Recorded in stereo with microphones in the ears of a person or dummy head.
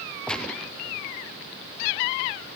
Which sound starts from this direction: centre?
A gunshot, at 0.3 s.